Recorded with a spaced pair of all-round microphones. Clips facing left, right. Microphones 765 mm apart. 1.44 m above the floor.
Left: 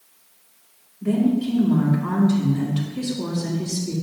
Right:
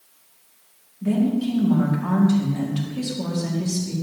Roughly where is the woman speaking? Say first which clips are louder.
Left 1 dB; right.